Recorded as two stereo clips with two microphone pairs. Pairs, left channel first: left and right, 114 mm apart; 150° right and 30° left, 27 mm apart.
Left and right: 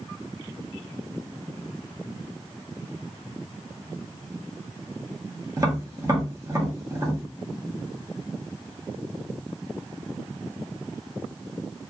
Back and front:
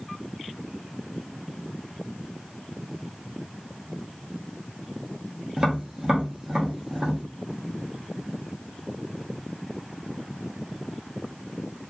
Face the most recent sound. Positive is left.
turn(degrees=-30)